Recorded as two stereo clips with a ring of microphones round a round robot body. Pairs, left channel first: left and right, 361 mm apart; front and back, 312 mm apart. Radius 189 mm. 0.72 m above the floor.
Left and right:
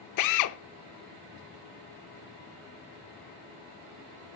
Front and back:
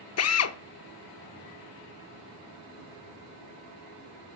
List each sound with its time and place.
0.2 s a drill: 45° left, 0.7 m